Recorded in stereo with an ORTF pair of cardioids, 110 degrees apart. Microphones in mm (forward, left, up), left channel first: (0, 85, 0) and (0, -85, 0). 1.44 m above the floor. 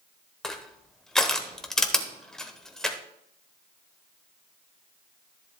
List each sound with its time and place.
0.4 s crushing: 5° left, 1.1 m